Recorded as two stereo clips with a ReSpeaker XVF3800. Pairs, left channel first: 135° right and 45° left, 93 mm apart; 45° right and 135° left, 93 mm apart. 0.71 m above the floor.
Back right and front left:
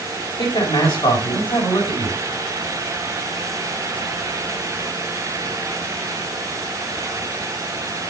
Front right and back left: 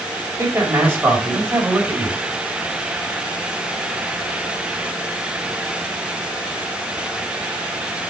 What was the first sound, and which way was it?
A man speaking, 160° right.